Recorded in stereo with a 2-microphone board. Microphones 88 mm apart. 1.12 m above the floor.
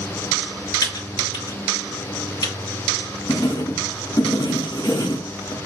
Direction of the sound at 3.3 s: 50° left (ahead or behind).